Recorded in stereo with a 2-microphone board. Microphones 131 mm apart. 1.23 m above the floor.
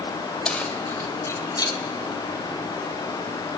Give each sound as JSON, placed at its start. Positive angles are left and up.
{"t": 0.5, "sound": "keys jangling", "side_deg": 5, "distance_m": 3.5}